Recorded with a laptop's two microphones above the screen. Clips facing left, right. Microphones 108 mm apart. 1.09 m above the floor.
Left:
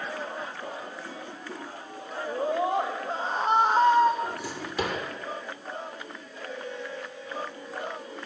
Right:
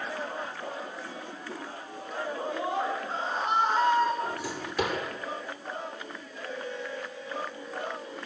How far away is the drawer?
About 8 m.